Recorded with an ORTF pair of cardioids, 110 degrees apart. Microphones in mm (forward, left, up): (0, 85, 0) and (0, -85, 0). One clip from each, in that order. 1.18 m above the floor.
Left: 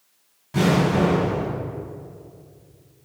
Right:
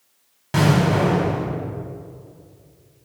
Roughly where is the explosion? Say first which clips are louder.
Right 1 dB; right.